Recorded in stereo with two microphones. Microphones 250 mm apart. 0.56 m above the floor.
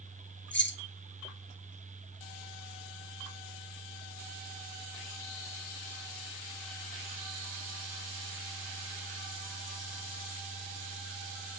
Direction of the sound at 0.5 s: 45° left (ahead or behind).